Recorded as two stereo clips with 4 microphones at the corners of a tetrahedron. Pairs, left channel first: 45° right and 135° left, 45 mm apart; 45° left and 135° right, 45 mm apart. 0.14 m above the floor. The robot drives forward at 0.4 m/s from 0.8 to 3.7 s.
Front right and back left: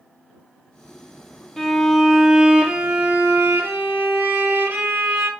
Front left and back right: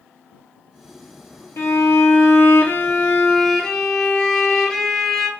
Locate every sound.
1.6 s a violin: 40° left, 0.7 m; by 5.3 s 125° left, 0.6 m